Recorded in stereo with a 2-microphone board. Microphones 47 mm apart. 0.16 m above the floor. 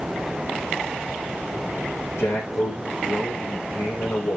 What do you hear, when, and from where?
2.2 s a man speaking: 80° left, 7 m